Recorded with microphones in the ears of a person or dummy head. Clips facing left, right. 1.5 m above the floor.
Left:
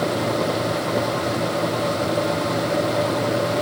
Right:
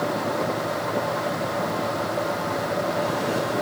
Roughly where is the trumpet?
No trumpet in this recording.